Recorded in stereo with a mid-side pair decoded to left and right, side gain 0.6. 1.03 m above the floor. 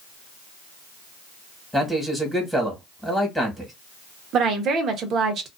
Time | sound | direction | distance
1.7 | a man speaking | 5° left | 1.4 m
4.3 | a woman speaking | 50° right | 0.9 m